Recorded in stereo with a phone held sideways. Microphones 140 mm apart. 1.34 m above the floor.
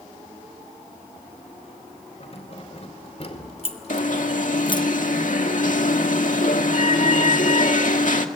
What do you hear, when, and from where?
2.2 s keys jangling: 50° left (ahead or behind), 4 m; by 4.8 s 25° left (ahead or behind), 0.5 m
3.9 s an alarm: 65° left (ahead or behind), 1.8 m